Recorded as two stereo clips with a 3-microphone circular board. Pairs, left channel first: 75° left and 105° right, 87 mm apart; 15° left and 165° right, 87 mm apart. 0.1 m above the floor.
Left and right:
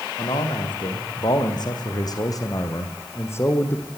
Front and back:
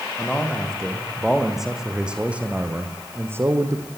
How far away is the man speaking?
About 7 m.